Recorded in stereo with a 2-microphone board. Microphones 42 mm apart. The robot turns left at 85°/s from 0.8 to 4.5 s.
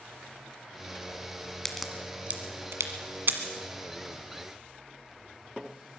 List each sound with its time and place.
1.6 s a crack: 15° left (ahead or behind), 1.5 m; by 3.4 s 45° right (ahead or behind), 1.5 m